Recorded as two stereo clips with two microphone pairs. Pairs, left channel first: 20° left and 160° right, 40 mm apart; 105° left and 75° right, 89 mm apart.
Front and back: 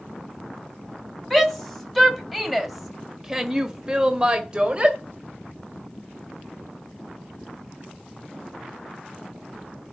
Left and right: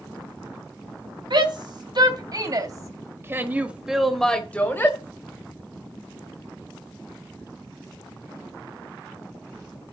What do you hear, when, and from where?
1.3 s a shout: 65° right, 3 m; by 5.0 s 145° left, 1.8 m